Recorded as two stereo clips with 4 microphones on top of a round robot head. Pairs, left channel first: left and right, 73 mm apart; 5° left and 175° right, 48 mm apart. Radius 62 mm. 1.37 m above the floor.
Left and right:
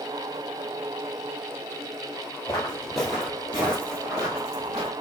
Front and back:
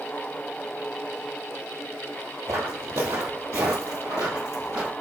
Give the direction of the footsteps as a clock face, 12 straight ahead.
6 o'clock.